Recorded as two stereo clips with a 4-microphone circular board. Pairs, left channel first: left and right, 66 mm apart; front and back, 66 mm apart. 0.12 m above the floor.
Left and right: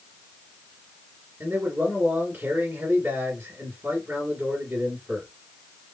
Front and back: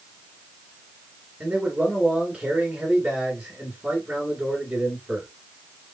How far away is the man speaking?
About 1.9 m.